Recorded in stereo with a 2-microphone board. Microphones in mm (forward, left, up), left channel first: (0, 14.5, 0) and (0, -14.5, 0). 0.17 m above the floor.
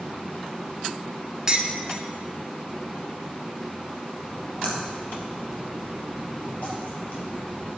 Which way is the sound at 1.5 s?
20° right (ahead or behind).